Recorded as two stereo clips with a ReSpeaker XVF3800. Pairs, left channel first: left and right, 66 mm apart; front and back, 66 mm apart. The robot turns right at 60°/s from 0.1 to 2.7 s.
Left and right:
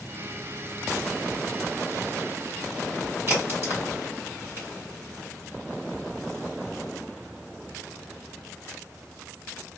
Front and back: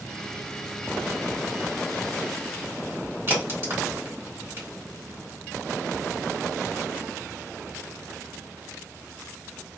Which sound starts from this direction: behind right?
A crack, at 3.3 s.